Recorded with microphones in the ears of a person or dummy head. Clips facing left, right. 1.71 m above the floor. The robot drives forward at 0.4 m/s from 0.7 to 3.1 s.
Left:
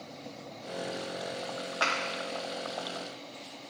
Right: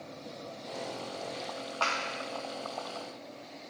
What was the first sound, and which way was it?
A clap, 20° left (ahead or behind).